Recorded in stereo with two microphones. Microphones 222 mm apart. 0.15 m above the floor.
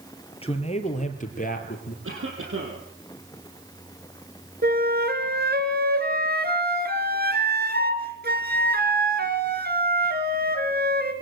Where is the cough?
70° right (ahead or behind), 4.5 m.